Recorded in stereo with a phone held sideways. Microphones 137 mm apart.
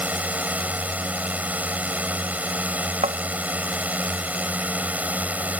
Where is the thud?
60° right (ahead or behind).